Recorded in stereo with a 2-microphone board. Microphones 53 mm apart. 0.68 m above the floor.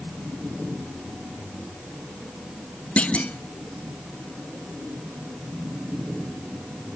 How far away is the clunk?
About 0.6 m.